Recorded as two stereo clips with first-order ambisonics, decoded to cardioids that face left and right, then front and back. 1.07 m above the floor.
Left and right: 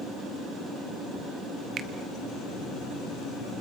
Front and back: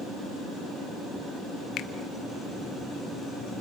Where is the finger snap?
35° right, 0.9 m.